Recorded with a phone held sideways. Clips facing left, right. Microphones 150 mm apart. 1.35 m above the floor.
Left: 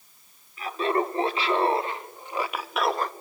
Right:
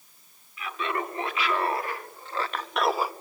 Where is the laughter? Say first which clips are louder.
Left 6 dB; 35° left (ahead or behind), 3.5 m; by 3.1 s 10° right (ahead or behind), 1.3 m.